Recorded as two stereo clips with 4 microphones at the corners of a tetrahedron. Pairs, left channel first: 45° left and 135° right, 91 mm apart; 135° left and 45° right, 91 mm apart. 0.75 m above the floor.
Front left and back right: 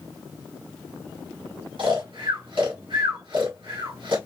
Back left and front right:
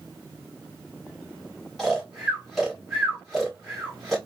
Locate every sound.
1.8 s snoring: 135° right, 1.7 m